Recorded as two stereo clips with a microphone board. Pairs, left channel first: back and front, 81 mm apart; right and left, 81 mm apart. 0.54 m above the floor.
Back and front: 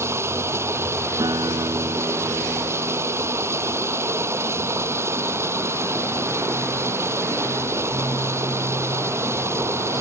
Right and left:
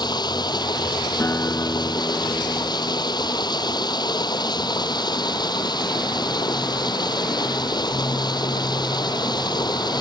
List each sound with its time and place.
0.0 s running water: 60° right
1.2 s a guitar: 30° right